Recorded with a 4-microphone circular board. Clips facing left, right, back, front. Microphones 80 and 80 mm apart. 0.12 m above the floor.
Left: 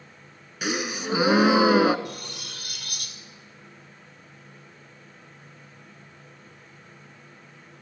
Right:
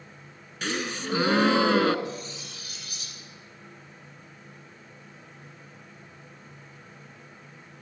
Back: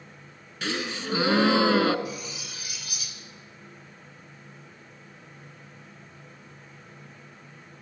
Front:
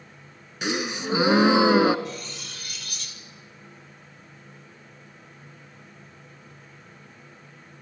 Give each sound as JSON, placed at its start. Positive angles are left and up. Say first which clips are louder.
{"t": 0.6, "sound": "a gasp", "louder": "left 2 dB, front 3 dB", "azimuth_deg": 35, "distance_m": 0.9}
{"t": 2.0, "sound": "cutlery clinking", "louder": "right 1 dB, even", "azimuth_deg": 100, "distance_m": 2.0}